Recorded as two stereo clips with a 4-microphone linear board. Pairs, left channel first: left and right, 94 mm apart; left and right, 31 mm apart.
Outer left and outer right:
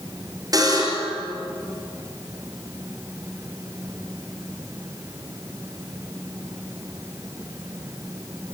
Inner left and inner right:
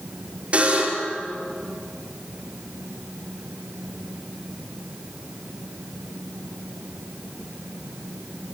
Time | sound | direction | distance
0.5 | a buzzer | 40° right (ahead or behind) | 5 m